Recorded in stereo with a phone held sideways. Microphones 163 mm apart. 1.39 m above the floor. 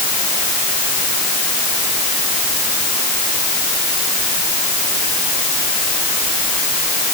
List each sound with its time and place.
Only background noise.